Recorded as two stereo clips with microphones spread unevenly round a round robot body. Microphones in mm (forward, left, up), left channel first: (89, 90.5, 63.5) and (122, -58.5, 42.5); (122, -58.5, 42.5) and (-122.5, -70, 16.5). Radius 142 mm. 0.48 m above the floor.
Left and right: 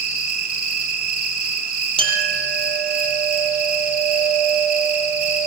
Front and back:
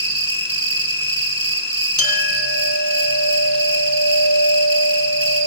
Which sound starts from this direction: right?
An insect, at 0.0 s.